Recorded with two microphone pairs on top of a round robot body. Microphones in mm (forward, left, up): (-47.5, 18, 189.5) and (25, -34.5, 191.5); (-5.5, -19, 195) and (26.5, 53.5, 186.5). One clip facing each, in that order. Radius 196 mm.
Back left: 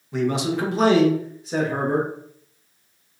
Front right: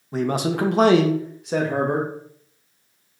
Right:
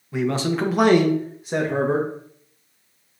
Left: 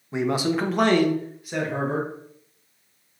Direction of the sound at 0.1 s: 10° left.